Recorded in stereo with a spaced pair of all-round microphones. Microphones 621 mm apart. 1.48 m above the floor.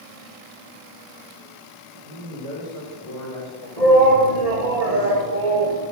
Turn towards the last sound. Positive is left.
turn(degrees=-75)  # may be behind; listen again after turning